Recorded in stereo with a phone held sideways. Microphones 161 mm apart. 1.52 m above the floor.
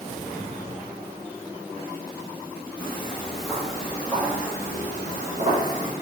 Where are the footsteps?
15° left (ahead or behind), 1.7 m; by 5.9 s 25° right (ahead or behind), 3 m.